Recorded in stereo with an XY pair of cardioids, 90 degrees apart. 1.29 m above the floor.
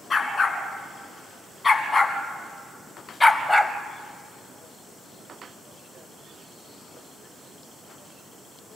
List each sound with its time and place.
0.1 s a dog barking: 35° left, 3.5 m; by 3.7 s 10° left, 1.4 m